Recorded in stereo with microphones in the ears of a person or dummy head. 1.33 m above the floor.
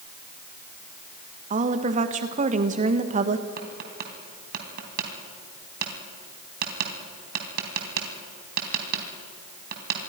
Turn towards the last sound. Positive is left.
turn(degrees=-60)  # may be behind; listen again after turning